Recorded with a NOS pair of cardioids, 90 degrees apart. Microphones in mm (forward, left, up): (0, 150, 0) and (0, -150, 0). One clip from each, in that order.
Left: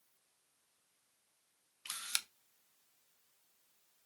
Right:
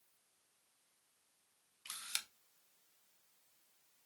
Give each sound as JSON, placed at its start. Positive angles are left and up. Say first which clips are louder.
{"t": 1.9, "sound": "a camera shutter", "louder": "left 4 dB", "azimuth_deg": 25, "distance_m": 0.6}